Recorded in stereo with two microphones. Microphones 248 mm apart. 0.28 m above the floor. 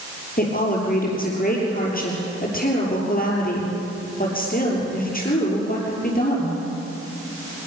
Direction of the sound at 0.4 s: 35° left (ahead or behind).